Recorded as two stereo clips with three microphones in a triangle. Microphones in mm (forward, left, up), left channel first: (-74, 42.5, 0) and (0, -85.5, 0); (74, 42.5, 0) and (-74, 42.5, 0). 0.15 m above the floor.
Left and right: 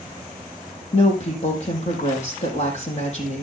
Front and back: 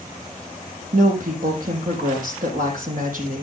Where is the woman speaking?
160° left, 5 m.